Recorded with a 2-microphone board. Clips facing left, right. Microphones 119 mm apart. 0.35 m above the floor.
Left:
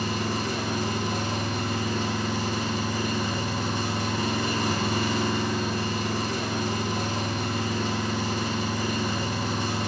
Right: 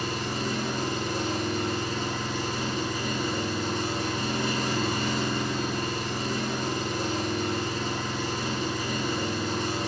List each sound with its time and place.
0.0 s an engine running: 80° left, 1.0 m